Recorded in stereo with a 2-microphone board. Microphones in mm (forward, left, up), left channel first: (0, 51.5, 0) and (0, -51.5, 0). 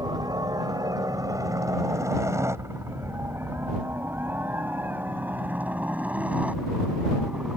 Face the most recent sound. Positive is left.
turn(degrees=-10)  # may be behind; listen again after turning